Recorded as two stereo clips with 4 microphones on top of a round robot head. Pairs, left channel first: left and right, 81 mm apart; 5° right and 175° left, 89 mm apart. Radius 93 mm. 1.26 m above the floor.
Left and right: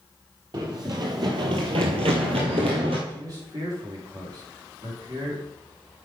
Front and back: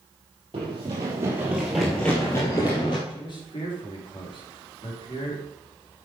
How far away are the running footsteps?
About 3 m.